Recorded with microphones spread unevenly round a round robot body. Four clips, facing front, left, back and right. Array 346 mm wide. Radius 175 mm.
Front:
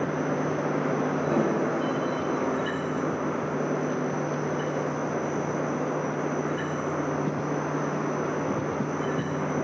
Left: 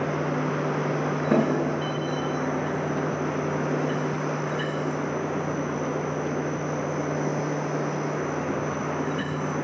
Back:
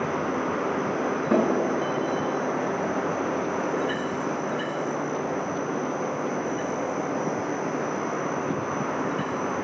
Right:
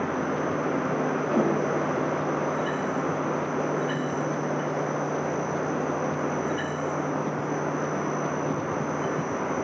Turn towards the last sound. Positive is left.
turn(degrees=145)